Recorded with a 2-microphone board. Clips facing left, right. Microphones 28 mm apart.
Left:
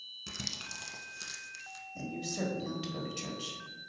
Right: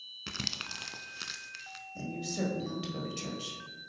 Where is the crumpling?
50° right (ahead or behind), 0.5 m.